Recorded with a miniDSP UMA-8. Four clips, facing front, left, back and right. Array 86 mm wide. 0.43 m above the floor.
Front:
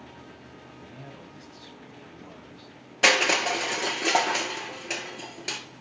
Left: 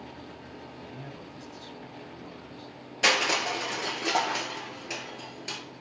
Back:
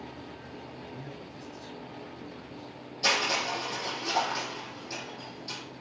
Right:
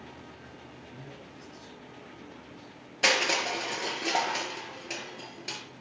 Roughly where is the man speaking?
Ahead left.